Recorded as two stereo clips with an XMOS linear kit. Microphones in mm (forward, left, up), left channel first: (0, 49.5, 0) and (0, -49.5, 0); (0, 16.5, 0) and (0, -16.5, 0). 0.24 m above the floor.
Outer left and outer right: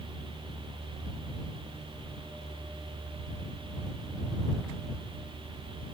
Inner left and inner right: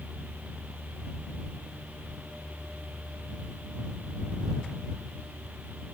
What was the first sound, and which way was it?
Only background noise.